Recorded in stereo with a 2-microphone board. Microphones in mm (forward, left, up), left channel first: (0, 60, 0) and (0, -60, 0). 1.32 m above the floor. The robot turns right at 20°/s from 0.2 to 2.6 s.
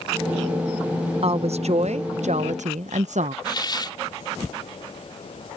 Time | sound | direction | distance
1.2 | a woman speaking | 55° right (ahead or behind) | ?
3.5 | a hiss | 40° left (ahead or behind) | ?